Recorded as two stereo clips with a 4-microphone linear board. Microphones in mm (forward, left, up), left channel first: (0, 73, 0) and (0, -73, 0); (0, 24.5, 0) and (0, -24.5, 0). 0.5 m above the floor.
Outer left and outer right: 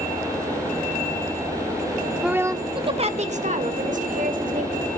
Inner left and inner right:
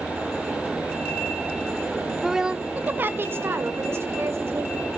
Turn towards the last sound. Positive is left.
turn(degrees=-65)  # may be behind; listen again after turning